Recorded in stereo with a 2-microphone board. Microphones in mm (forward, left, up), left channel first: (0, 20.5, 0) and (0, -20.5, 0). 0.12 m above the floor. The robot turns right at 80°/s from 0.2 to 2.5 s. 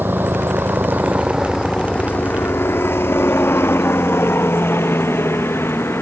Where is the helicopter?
55° right (ahead or behind); by 6.0 s 75° left (ahead or behind).